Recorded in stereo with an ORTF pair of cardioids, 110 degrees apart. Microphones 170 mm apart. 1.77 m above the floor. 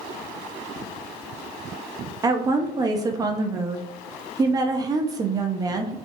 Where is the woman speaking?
25° right, 0.5 m.